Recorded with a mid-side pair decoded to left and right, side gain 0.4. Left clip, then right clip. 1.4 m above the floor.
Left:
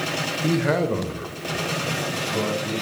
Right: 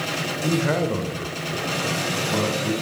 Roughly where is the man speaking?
Ahead left.